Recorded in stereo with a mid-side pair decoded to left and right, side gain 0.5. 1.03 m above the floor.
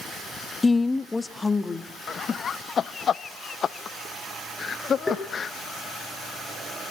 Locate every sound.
0.6 s a woman speaking: 25° left, 0.5 m; by 1.9 s 20° left, 1.8 m
2.1 s laughter: 45° left, 0.8 m
5.1 s tapping: 15° left, 5.5 m